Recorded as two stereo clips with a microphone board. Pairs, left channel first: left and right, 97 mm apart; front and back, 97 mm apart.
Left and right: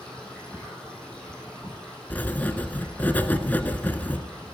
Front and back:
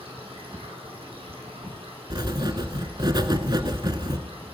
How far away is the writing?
About 0.7 m.